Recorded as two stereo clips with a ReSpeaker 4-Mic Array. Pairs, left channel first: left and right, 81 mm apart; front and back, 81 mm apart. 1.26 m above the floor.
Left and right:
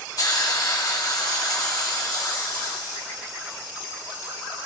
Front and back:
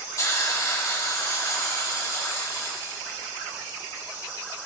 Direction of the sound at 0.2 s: 50° left.